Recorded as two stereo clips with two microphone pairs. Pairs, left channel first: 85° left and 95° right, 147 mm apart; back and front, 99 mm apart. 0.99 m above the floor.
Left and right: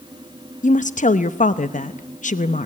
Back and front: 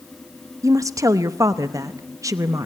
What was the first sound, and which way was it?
A woman speaking, 55° left.